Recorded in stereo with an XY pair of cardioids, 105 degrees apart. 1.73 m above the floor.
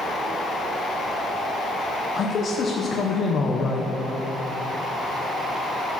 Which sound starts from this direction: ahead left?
A man speaking, at 2.2 s.